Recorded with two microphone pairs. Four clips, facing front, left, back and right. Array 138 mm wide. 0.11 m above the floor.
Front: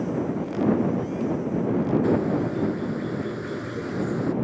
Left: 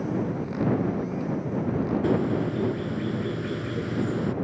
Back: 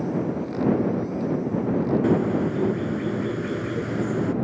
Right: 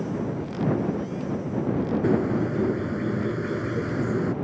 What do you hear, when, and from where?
2.0 s a bird: 125° right